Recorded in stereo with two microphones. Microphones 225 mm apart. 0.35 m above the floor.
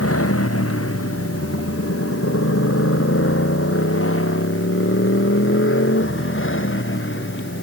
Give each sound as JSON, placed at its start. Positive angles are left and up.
{"t": 0.0, "sound": "a motorcycle", "side_deg": 90}